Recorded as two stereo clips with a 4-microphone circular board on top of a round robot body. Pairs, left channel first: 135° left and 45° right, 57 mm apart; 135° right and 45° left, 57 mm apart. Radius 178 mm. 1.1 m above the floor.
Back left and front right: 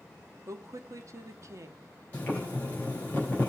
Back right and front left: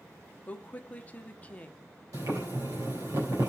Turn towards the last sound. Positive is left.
turn(degrees=70)